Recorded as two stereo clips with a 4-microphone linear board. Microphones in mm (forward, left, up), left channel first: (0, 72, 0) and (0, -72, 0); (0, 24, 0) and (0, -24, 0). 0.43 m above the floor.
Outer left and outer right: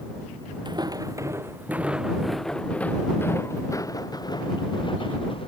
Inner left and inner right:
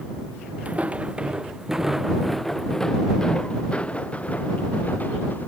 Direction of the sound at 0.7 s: 30° right (ahead or behind).